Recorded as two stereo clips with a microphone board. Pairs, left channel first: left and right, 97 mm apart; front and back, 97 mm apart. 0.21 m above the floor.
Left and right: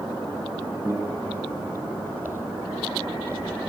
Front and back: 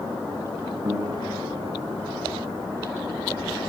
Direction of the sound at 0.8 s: 130° right.